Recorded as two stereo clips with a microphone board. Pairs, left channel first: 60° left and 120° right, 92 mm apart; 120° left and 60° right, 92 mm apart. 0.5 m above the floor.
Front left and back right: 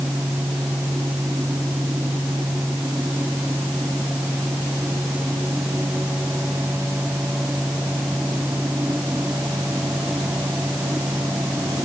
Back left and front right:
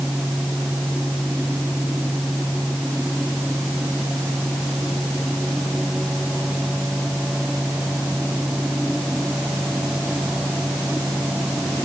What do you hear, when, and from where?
Only background noise.